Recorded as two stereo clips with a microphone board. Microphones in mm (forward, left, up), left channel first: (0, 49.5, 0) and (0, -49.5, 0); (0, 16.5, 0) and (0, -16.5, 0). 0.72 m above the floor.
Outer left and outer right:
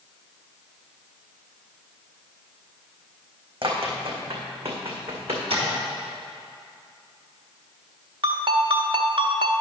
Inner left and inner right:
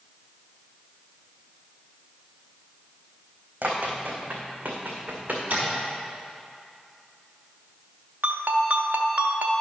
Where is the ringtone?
60° right (ahead or behind), 0.9 m.